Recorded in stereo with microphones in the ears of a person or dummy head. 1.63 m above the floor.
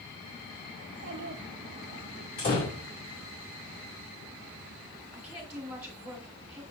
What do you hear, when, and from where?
0.8 s a child speaking: 50° right (ahead or behind), 1.1 m
2.4 s a door slam: 45° left (ahead or behind), 2.5 m
5.1 s a woman speaking: 5° right (ahead or behind), 2.5 m